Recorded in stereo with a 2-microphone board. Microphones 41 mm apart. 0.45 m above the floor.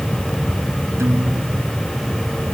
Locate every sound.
1.0 s a guitar: 75° right (ahead or behind)